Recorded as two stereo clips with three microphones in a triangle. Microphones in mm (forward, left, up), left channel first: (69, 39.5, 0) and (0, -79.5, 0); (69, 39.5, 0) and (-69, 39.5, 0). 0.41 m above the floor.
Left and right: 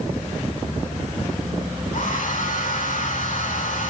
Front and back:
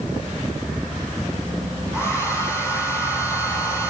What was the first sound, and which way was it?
A hair dryer, 70° left.